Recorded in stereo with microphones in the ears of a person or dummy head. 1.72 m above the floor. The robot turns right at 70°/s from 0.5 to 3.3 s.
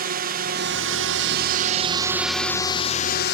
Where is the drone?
130° right; by 3.4 s 65° left.